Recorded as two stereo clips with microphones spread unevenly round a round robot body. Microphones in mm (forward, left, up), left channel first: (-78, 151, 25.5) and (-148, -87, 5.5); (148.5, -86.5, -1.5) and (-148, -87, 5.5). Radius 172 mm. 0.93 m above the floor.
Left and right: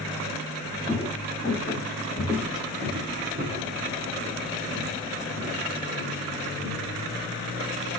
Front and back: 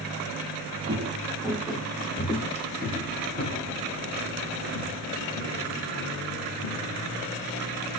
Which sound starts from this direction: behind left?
Footsteps, at 0.9 s.